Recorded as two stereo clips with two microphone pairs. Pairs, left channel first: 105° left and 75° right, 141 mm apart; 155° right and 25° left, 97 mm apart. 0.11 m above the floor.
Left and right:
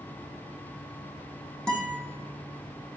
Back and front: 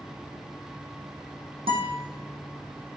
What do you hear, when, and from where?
1.7 s a guitar: 25° left, 3.5 m